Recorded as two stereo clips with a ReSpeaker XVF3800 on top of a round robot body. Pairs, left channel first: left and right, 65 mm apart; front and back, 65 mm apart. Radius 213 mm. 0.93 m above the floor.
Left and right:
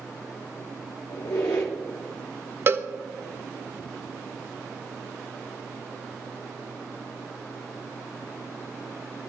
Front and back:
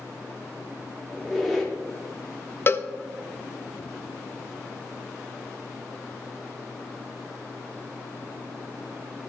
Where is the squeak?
90° left, 0.9 m.